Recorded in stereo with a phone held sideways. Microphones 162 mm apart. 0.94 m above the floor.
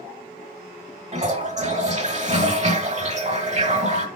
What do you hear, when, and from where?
1.1 s a toilet flushing: 45° right (ahead or behind), 1.1 m